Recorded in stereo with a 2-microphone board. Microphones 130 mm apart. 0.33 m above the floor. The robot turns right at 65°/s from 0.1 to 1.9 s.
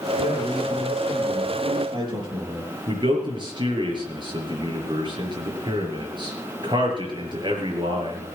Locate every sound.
0.2 s a man speaking: 105° left, 6.5 m; by 2.7 s 145° right, 6.5 m
2.9 s a man speaking: 40° right (ahead or behind), 5 m